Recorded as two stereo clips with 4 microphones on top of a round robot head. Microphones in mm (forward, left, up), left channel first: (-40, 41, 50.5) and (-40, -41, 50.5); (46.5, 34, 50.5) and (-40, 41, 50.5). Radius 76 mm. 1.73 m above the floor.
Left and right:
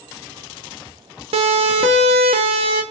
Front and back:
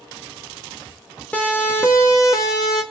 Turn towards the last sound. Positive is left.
turn(degrees=-60)